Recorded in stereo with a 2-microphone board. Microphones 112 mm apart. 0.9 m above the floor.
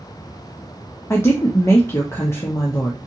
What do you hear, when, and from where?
1.1 s a woman speaking: 25° left (ahead or behind), 0.6 m